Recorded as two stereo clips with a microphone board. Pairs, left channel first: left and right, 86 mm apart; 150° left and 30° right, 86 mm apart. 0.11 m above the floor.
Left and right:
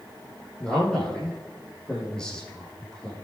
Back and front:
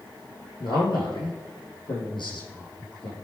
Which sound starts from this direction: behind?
A man speaking, at 0.6 s.